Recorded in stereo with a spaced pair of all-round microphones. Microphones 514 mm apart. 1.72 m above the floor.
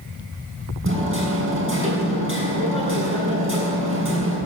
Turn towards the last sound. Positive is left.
turn(degrees=-25)  # may be behind; listen again after turning